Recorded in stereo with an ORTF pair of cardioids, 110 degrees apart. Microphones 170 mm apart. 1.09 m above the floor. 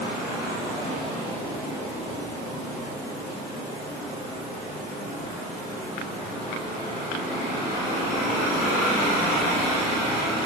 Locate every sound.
Only background noise.